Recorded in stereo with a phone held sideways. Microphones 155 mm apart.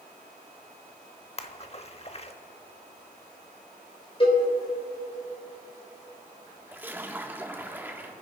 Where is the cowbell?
35° left (ahead or behind), 3.5 m.